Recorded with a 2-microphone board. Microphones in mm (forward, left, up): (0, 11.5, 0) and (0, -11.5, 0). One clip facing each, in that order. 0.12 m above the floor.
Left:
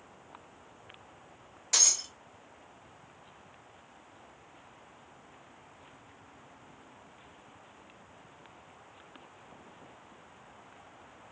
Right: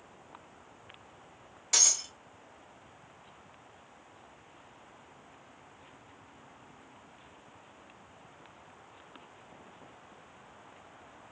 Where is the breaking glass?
Centre (ahead or behind), 1.4 m.